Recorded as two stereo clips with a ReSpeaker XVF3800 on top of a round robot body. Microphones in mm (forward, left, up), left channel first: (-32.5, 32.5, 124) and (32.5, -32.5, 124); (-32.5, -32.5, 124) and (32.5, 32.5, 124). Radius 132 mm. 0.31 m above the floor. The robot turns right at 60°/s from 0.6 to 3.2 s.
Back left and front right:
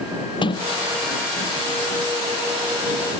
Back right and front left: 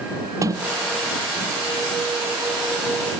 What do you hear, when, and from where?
0.4 s a sliding door: 100° left; by 1.6 s 160° left